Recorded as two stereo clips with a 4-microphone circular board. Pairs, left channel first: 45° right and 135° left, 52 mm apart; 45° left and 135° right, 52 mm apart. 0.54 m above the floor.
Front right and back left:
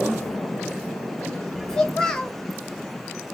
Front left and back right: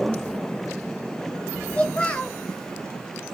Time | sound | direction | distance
1.7 | a child speaking | 15° left | 0.7 m